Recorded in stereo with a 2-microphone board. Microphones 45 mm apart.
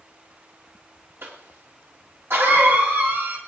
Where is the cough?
65° right (ahead or behind), 1.8 m.